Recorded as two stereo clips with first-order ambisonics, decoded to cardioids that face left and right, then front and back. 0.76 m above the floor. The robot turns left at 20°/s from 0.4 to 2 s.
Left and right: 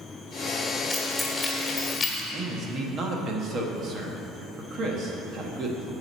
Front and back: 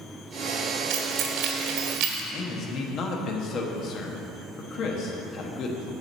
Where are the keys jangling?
Straight behind, 1.4 m; by 2.2 s 160° left, 1.4 m.